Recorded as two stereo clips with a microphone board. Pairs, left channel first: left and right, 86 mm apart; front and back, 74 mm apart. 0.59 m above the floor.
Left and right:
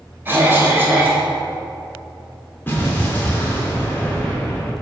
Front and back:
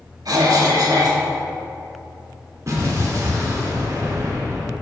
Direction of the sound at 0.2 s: 155° right.